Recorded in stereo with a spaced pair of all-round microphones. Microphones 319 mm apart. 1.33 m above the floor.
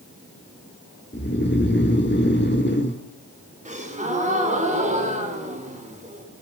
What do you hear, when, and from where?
1.1 s snoring: 35° left (ahead or behind), 2.5 m
3.6 s a gasp: 20° right (ahead or behind), 5.5 m